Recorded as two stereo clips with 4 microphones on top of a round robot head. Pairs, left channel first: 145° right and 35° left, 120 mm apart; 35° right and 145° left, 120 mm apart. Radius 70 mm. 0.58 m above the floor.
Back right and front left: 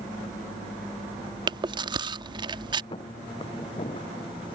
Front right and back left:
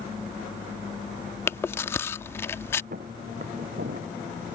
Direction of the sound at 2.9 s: 165° left.